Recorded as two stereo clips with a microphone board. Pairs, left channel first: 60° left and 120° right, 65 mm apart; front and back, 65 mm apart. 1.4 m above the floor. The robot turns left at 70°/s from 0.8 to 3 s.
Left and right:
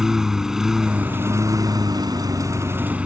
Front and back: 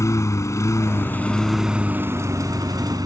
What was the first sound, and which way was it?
A lawn mower, 35° right.